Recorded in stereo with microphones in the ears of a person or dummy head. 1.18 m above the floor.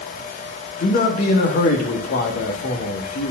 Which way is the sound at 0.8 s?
50° left (ahead or behind).